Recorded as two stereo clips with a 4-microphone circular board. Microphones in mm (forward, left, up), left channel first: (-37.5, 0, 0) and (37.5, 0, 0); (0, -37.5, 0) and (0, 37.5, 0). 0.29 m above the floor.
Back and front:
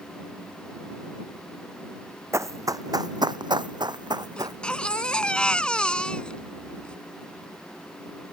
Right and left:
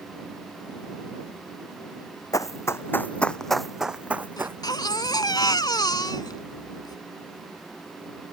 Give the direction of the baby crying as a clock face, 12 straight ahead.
3 o'clock.